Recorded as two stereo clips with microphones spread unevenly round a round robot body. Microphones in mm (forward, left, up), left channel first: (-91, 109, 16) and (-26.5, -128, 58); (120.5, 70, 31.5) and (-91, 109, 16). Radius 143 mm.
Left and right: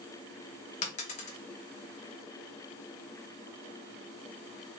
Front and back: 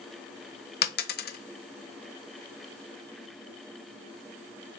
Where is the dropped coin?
40° left, 0.5 m.